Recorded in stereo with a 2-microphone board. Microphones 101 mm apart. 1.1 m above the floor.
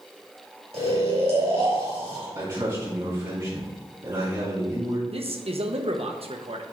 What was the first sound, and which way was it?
Snoring, 85° right.